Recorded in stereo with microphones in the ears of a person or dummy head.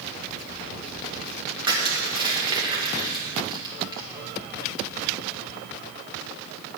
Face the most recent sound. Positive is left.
turn(degrees=-20)  # may be behind; listen again after turning